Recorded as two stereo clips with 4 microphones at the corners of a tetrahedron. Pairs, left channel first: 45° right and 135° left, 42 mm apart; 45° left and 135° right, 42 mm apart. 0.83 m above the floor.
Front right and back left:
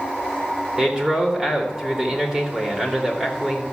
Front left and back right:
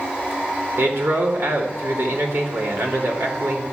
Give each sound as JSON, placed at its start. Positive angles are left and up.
{"t": 0.8, "sound": "a man speaking", "azimuth_deg": -155, "distance_m": 3.0}